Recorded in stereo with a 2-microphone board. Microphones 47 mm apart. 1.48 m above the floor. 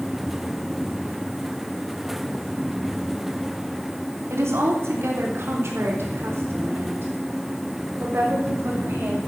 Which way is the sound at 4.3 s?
70° right (ahead or behind).